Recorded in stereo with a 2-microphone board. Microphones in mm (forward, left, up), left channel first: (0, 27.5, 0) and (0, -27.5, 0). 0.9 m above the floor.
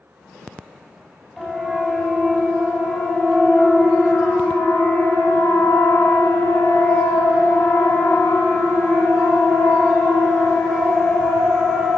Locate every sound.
1.4 s a siren: 5° left (ahead or behind), 5.5 m; by 12.0 s 30° left (ahead or behind), 7 m